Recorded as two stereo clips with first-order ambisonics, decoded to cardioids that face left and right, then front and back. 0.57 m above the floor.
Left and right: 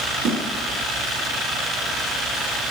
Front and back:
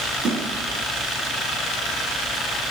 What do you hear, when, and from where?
0.2 s a snare drum: 130° right, 6 m